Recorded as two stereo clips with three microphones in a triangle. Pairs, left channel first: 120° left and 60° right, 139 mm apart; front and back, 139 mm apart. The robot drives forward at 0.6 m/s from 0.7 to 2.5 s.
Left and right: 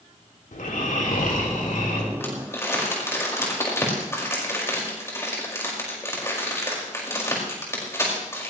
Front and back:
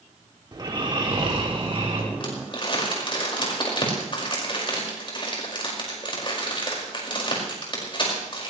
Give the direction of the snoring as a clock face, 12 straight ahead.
8 o'clock.